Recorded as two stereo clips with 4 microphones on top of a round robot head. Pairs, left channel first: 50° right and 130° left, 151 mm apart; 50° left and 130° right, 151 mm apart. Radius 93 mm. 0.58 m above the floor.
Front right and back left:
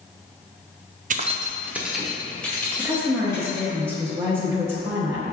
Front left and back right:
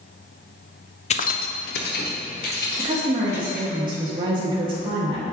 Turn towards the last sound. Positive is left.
turn(degrees=-165)